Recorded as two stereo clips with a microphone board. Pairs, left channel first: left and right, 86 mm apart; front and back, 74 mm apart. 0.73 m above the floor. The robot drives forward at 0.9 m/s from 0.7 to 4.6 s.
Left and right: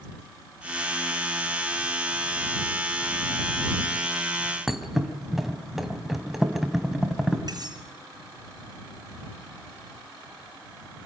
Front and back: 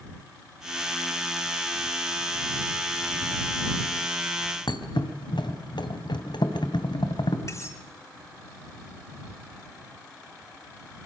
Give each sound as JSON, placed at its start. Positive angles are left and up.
{"t": 4.7, "sound": "a thud", "azimuth_deg": -5, "distance_m": 2.5}
{"t": 7.5, "sound": "cutlery clinking", "azimuth_deg": -50, "distance_m": 6.0}